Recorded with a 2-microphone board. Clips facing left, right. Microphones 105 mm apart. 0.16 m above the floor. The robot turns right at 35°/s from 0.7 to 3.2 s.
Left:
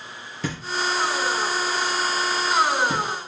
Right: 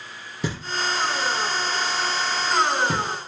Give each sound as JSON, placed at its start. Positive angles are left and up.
{"t": 0.4, "sound": "knocking", "side_deg": -15, "distance_m": 3.0}